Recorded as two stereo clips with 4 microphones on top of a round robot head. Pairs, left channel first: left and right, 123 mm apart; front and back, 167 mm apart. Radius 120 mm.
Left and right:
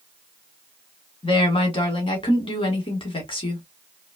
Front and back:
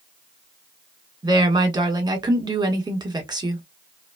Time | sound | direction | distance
1.2 | a woman speaking | 125° left | 1.5 m